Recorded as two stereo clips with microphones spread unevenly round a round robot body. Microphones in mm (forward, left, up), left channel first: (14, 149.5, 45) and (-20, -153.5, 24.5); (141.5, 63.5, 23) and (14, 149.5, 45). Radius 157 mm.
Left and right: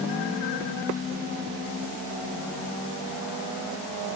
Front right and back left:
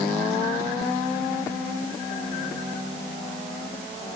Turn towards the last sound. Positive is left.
No sound to turn to.